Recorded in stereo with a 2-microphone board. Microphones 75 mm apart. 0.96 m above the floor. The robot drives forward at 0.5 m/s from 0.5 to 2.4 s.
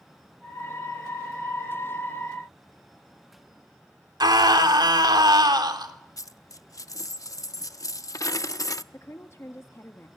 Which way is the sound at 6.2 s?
55° left (ahead or behind).